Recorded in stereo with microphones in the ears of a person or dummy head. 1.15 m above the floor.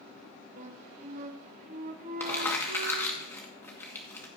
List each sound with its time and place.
0.6 s a flute: 45° right (ahead or behind), 0.9 m
2.2 s crumpling: 15° left (ahead or behind), 1.6 m